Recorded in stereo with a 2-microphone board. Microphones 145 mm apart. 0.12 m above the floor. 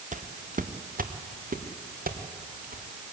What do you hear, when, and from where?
0.1 s footsteps: 60° right (ahead or behind), 1.7 m; by 2.8 s 85° right, 3.5 m